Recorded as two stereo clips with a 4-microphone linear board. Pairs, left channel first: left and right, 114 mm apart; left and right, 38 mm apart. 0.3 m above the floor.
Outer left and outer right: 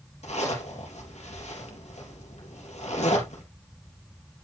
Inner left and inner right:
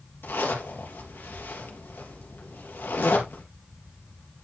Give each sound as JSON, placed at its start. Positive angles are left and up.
{"t": 0.2, "sound": "a zipper", "side_deg": 75, "distance_m": 3.5}